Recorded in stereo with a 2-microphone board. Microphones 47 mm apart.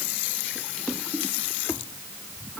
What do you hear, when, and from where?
Only background noise.